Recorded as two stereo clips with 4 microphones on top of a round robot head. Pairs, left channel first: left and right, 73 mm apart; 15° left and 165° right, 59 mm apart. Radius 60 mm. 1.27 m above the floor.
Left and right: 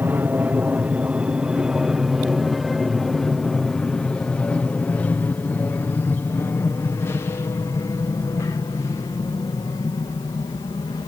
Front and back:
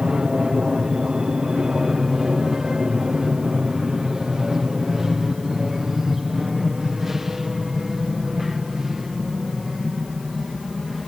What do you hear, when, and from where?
0.0 s an aircraft: 100° right; by 11.1 s 105° left